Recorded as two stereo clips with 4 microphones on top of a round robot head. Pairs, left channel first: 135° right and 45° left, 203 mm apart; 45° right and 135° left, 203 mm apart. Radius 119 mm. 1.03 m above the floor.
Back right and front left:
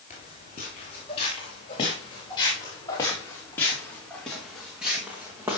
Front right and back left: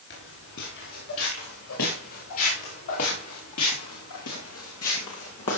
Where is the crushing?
No crushing in this recording.